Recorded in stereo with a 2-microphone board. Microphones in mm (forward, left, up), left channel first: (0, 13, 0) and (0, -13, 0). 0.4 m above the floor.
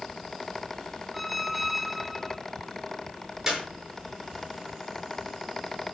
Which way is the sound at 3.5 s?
25° right (ahead or behind).